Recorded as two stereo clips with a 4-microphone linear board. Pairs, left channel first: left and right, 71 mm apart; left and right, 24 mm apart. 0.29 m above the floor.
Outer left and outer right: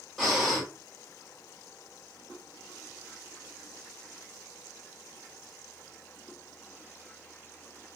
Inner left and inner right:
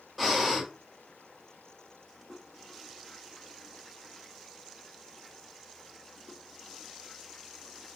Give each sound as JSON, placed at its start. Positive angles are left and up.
{"t": 0.2, "sound": "breathing", "side_deg": 0, "distance_m": 1.5}